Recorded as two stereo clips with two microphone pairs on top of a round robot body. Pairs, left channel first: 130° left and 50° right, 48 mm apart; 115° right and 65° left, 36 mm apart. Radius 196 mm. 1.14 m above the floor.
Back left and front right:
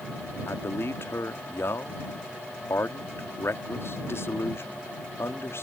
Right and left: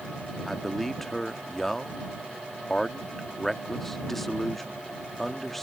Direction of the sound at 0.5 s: 160° left.